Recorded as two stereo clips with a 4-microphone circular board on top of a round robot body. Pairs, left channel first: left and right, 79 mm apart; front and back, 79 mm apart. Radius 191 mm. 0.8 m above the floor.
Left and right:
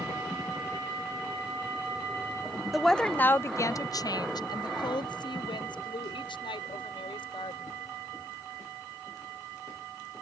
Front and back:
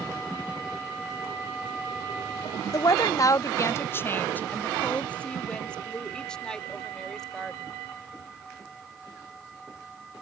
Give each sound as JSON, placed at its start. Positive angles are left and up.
{"t": 2.7, "sound": "a woman speaking", "azimuth_deg": -5}